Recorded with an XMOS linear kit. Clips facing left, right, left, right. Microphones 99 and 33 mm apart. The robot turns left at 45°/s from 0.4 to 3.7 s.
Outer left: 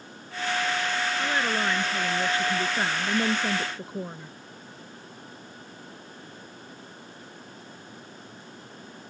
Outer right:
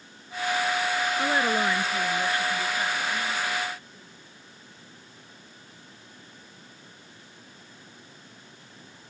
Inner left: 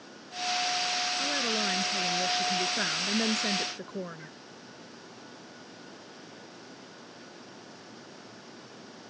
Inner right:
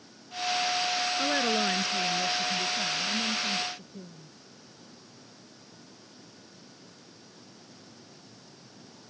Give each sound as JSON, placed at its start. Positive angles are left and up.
{"t": 1.2, "sound": "a woman speaking", "azimuth_deg": -155}